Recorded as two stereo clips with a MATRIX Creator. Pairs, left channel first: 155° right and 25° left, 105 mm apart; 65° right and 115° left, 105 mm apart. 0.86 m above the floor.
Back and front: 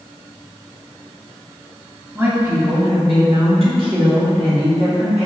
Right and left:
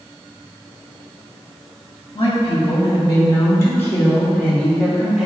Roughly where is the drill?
No drill in this recording.